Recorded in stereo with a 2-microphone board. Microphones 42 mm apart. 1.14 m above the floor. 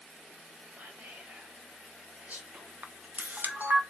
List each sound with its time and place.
0.8 s whispering: 35° right (ahead or behind), 0.7 m
2.8 s a camera shutter: 45° right (ahead or behind), 0.5 m